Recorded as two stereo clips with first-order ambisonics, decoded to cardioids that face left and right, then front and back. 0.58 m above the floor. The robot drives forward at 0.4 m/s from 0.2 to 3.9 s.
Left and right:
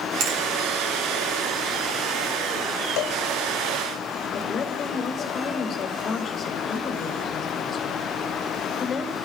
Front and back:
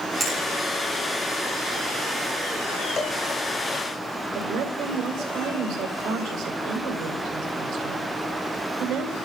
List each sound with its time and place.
0.2 s a finger snap: 105° right, 6.5 m
3.0 s a cowbell: 70° left, 0.9 m; by 3.2 s 75° left, 0.9 m
4.3 s a woman speaking: 160° left, 2.5 m